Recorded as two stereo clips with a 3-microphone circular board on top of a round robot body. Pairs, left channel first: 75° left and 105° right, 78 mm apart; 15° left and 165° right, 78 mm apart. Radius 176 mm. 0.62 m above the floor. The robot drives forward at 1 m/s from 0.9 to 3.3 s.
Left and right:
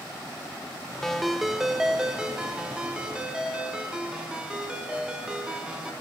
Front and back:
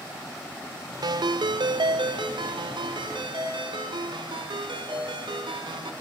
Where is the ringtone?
160° left, 0.7 m; by 5.9 s 175° left, 3 m.